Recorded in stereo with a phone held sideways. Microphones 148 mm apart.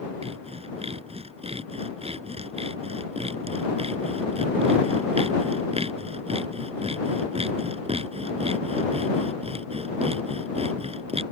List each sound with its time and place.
0.2 s sawing: 45° right (ahead or behind)